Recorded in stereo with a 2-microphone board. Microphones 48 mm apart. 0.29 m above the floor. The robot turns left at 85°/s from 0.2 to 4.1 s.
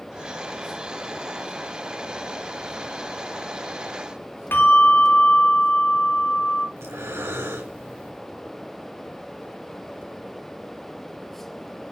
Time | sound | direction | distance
4.5 | a bell | 55° left (ahead or behind) | 2.5 m
6.8 | breathing | 70° right (ahead or behind) | 3.5 m